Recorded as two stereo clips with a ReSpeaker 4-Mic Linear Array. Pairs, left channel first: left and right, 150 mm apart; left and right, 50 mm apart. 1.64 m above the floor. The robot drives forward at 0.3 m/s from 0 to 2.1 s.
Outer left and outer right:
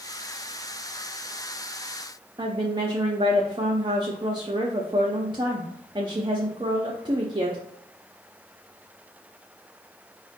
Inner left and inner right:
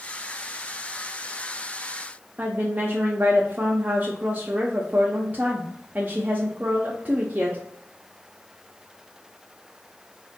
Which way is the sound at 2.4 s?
30° right (ahead or behind).